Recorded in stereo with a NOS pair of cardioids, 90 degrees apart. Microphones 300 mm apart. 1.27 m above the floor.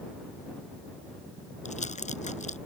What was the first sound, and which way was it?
Crumpling, 25° left.